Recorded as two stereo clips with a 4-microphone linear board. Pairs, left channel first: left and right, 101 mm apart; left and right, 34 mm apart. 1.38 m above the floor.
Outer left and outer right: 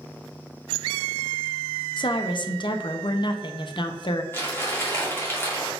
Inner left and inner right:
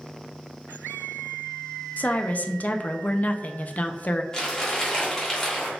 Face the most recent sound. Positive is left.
turn(degrees=25)  # may be behind; listen again after turning